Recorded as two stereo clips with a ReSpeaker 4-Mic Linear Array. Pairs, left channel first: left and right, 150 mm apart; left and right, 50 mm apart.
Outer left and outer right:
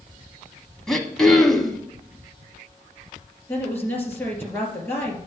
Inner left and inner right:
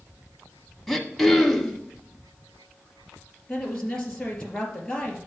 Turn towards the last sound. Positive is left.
turn(degrees=15)  # may be behind; listen again after turning